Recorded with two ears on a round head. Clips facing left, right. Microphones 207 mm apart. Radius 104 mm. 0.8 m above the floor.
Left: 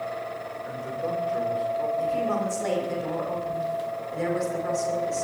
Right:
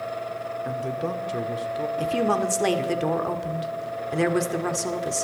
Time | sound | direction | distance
0.7 | a man speaking | 55° right (ahead or behind) | 2.5 m
2.0 | a woman speaking | 75° right (ahead or behind) | 2 m